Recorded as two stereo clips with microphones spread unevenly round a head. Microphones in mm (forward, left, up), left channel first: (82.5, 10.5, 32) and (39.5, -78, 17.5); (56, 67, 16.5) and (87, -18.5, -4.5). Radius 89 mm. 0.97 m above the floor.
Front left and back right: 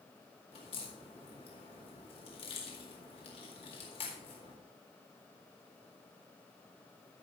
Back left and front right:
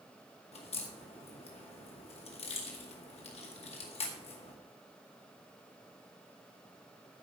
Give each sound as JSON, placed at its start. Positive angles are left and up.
{"t": 0.5, "sound": "a crack", "azimuth_deg": 110, "distance_m": 2.0}